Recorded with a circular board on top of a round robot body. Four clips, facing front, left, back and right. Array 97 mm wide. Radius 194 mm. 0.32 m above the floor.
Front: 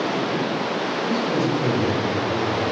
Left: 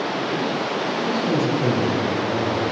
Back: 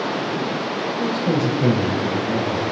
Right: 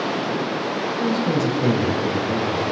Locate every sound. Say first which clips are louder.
1.0 s a man speaking: right 1 dB, back 2 dB; 145° right, 2 m; by 2.6 s 175° right, 4 m